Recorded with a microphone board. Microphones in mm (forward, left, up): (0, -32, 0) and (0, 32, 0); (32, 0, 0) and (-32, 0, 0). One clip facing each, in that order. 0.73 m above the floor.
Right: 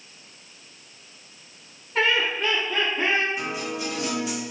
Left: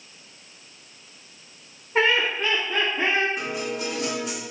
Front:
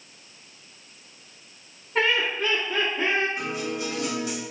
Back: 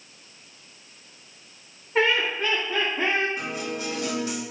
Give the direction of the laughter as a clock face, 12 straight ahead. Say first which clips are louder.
Left 2 dB, back 1 dB; 9 o'clock.